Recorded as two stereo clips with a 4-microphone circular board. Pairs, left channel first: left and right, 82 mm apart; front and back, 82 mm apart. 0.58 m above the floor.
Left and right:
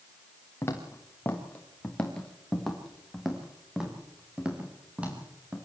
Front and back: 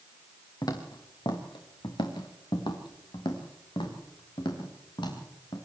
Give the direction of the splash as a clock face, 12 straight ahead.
I don't hear a splash.